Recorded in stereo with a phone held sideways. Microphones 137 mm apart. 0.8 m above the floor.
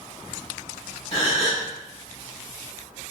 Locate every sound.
1.1 s a gasp: 55° left (ahead or behind), 1.3 m